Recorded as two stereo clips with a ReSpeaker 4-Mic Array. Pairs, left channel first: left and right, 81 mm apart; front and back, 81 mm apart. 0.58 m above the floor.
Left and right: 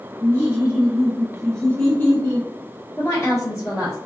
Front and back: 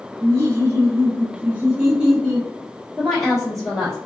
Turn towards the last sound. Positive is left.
turn(degrees=85)